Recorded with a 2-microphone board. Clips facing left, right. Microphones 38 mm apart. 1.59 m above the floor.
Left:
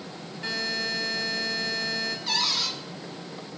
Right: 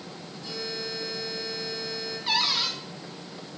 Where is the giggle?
No giggle in this recording.